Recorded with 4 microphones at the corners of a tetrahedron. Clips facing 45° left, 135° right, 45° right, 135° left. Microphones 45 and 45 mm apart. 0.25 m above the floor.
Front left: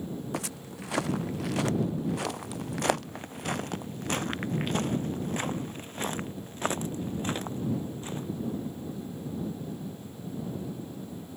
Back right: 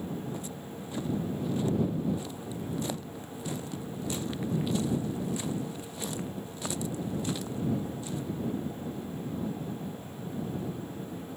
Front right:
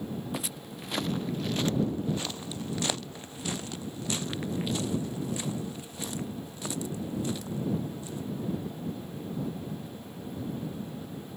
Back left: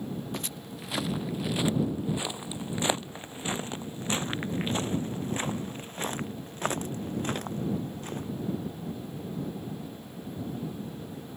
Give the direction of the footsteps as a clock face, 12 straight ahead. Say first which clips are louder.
Front left 2 dB, even; 11 o'clock.